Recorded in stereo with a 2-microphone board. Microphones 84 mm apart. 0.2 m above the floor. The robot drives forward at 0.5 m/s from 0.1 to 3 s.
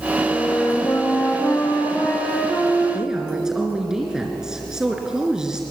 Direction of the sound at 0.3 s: 40° left (ahead or behind).